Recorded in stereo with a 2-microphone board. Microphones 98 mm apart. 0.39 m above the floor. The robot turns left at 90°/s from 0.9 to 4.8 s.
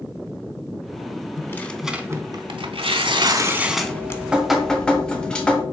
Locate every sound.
1.4 s tearing paper: 40° left, 0.5 m; by 4.2 s 145° left, 0.5 m
3.9 s dripping: 25° right (ahead or behind), 1.0 m; by 5.6 s 10° left (ahead or behind), 1.0 m